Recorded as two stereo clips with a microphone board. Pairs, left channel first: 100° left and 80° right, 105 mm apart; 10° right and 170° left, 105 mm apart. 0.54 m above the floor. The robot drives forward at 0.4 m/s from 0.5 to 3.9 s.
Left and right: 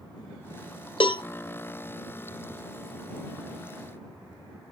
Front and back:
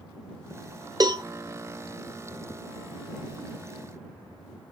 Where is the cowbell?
125° left, 0.8 m; by 1.2 s 130° left, 0.9 m.